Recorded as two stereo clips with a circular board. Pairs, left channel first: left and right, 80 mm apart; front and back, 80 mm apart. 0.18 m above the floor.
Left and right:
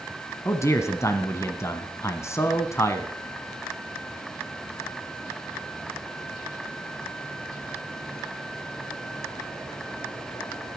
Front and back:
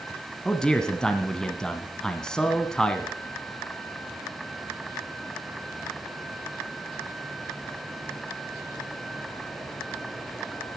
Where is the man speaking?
75° left, 1.3 m.